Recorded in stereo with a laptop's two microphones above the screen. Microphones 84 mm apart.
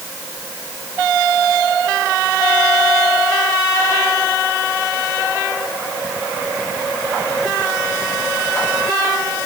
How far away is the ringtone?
No ringtone in this recording.